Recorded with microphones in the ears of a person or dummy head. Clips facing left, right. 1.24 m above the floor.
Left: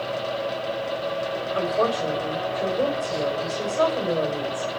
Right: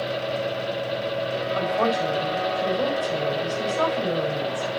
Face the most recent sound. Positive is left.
turn(degrees=30)  # may be behind; listen again after turning